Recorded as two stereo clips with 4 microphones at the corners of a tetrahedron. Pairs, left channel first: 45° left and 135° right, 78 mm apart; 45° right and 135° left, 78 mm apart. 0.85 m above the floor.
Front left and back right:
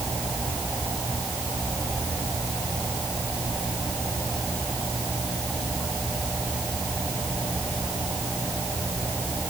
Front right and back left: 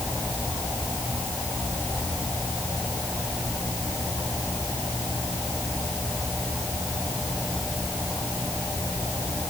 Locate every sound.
Only background noise.